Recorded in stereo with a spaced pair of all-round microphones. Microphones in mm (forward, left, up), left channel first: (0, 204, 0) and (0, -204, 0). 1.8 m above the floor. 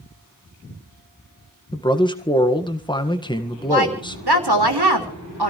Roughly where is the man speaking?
Centre.